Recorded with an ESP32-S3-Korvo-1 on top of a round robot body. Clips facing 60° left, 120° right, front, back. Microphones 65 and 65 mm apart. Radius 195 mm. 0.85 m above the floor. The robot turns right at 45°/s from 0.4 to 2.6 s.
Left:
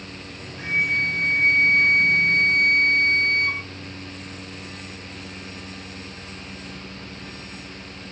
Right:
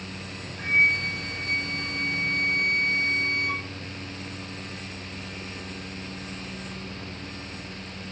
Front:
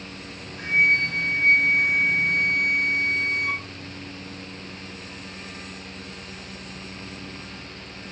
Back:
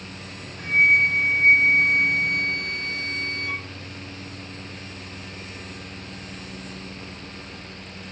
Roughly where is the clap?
I don't hear a clap.